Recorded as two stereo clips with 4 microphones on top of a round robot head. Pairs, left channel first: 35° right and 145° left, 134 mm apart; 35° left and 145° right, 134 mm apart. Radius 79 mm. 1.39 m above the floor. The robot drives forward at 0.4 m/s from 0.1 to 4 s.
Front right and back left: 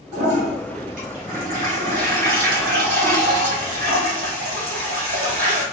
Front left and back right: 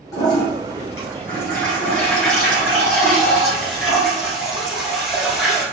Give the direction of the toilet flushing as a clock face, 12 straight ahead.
9 o'clock.